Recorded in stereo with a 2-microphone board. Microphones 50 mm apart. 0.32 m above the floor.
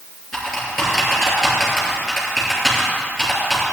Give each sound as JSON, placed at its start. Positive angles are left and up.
{"t": 0.3, "sound": "typing on a keyboard", "side_deg": 0, "distance_m": 3.0}